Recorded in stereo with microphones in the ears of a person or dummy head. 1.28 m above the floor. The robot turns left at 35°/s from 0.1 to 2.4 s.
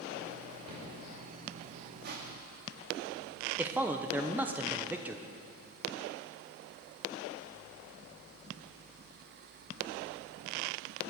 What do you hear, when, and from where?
0.7 s a cupboard door: 30° right (ahead or behind), 5.5 m; by 0.9 s 25° right (ahead or behind), 5.5 m
2.0 s crushing: 60° right (ahead or behind), 1.6 m; by 2.6 s 50° right (ahead or behind), 1.6 m
3.6 s a man speaking: 15° right (ahead or behind), 0.8 m